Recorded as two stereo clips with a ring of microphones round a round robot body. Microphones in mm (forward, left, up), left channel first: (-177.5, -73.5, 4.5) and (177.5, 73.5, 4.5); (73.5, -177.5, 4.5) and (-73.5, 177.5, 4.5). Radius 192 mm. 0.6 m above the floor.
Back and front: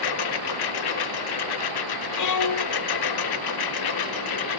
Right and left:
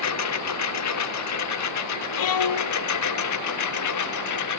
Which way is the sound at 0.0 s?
120° right.